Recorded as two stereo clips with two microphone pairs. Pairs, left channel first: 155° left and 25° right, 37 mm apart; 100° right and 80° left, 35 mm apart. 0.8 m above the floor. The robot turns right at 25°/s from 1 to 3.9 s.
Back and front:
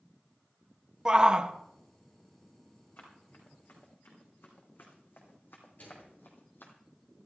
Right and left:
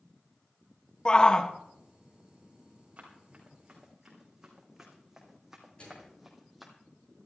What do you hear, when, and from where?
1.1 s a shout: 70° right, 0.8 m; by 1.5 s 55° right, 0.8 m
3.0 s running footsteps: 125° left, 5 m; by 6.7 s 170° left, 2 m
5.8 s a microwave: 165° right, 10 m